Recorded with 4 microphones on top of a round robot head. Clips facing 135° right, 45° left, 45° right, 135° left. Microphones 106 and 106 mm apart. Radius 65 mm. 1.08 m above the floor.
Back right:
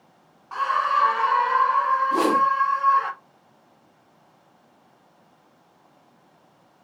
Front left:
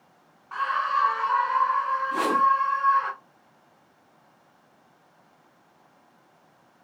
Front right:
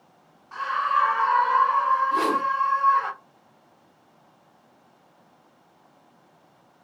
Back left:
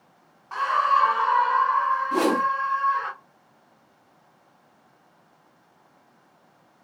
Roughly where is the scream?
Behind.